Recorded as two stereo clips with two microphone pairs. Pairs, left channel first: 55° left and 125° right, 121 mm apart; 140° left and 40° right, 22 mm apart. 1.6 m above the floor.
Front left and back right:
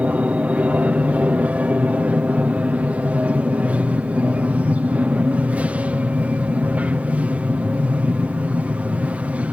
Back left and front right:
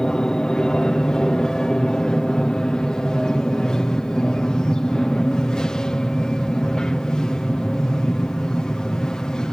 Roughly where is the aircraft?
Behind.